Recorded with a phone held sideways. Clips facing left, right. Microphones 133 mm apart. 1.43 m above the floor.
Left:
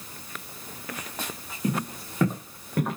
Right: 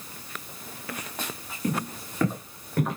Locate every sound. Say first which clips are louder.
1.6 s footsteps: left 1 dB; 15° left (ahead or behind), 4.5 m; by 3.0 s 5° left (ahead or behind), 6.5 m